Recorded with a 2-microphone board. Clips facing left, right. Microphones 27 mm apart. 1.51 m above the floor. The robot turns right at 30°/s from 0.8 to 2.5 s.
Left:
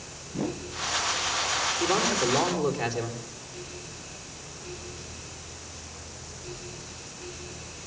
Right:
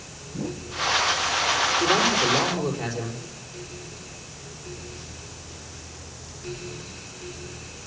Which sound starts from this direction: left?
A whoosh, at 0.3 s.